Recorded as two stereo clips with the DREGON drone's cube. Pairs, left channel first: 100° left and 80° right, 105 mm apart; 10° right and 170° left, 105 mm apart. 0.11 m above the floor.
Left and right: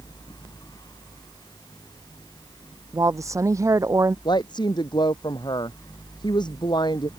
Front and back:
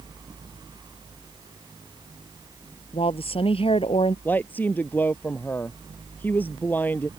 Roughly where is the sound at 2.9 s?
Ahead right.